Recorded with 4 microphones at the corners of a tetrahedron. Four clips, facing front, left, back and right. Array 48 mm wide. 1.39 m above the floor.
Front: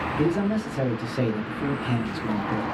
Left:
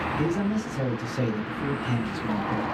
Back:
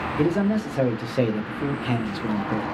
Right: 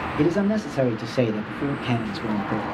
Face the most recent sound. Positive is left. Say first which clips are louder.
# right 9 dB, back 3 dB
turn(degrees=-120)